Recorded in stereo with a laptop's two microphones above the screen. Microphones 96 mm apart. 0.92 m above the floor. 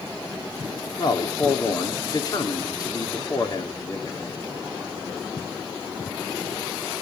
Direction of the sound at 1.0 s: 40° left (ahead or behind).